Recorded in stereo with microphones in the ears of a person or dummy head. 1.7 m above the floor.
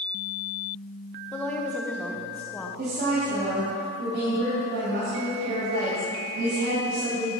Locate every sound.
1.3 s a woman speaking: 5° left (ahead or behind), 1.0 m
2.8 s a woman speaking: 55° right (ahead or behind), 2.5 m